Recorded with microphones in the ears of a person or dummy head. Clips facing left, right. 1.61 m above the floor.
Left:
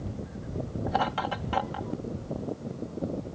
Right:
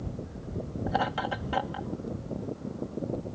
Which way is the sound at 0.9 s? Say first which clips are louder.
Even; 10° right (ahead or behind).